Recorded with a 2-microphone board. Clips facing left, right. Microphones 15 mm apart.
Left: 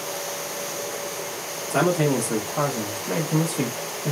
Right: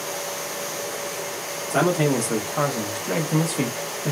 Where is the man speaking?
Centre (ahead or behind), 1.1 m; by 4.1 s 50° right (ahead or behind), 0.9 m.